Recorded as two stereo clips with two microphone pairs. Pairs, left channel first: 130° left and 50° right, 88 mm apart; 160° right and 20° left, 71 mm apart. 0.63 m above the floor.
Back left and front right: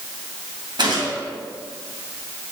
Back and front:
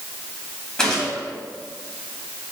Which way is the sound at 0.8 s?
80° right.